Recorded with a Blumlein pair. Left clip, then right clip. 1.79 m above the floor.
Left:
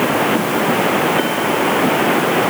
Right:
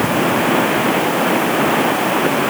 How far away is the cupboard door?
I don't hear a cupboard door.